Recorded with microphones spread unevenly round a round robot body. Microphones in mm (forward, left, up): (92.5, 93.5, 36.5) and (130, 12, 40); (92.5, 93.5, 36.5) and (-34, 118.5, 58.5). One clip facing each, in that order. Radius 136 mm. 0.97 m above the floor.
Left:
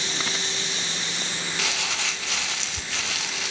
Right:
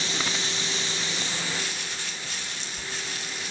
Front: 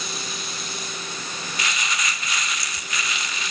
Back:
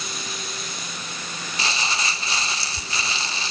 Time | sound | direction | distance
1.6 | crumpling | 105° left | 0.5 m